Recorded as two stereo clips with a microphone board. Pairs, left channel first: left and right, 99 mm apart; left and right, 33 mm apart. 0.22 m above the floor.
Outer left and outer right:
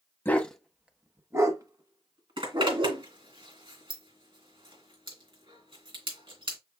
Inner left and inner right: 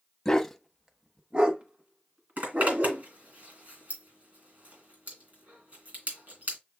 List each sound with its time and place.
0.2 s a dog barking: 20° left (ahead or behind), 0.6 m; by 3.0 s 55° right (ahead or behind), 1.5 m
2.4 s a zipper: 60° right (ahead or behind), 2.5 m